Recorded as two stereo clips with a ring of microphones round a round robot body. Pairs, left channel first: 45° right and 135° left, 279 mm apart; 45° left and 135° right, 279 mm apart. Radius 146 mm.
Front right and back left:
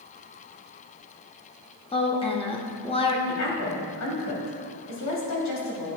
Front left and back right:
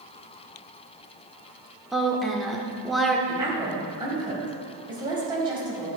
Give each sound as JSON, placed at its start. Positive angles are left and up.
{"t": 1.9, "sound": "a woman speaking", "azimuth_deg": -45, "distance_m": 0.8}
{"t": 3.3, "sound": "a woman speaking", "azimuth_deg": -60, "distance_m": 2.0}